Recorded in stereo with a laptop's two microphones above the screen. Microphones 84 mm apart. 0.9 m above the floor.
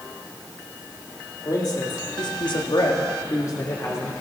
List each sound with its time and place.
1.4 s a man speaking: 45° left (ahead or behind), 2 m; by 4.1 s 30° left (ahead or behind), 3 m